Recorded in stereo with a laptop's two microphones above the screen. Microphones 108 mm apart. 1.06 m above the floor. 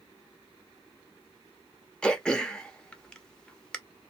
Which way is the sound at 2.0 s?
10° left (ahead or behind).